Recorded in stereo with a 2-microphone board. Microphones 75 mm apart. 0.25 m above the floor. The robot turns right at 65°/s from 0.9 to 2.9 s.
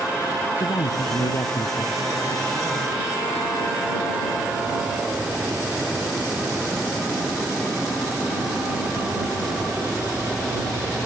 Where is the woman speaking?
75° left; by 2.1 s 155° left.